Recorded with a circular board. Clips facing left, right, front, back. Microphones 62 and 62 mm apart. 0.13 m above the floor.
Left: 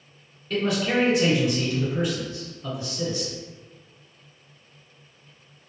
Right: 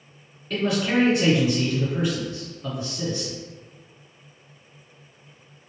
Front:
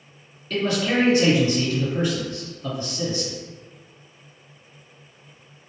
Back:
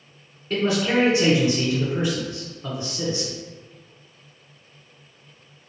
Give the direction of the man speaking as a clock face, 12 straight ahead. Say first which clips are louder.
Right 1 dB, back 1 dB; 6 o'clock.